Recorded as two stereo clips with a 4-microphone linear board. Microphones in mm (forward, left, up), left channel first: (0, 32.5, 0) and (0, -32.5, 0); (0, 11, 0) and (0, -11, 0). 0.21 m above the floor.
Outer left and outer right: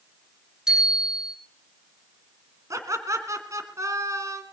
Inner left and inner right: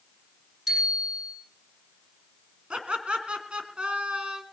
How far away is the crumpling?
No crumpling in this recording.